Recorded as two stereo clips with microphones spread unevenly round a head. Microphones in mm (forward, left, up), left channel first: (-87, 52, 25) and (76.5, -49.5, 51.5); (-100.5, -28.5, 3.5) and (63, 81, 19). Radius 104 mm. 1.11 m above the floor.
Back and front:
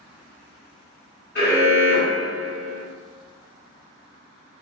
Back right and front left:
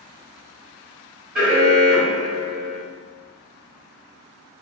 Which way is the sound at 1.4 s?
120° left.